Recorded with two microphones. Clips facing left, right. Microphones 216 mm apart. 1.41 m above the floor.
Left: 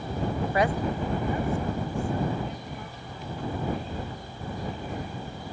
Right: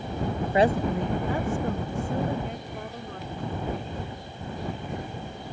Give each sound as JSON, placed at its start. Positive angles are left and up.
{"t": 0.5, "sound": "a woman speaking", "side_deg": -15}